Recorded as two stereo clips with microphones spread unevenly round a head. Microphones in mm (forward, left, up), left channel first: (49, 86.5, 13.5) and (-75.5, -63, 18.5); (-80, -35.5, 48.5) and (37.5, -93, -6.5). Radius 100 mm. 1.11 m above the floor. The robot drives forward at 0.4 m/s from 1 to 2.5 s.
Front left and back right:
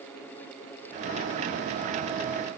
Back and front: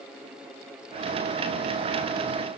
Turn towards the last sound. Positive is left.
No sound to turn to.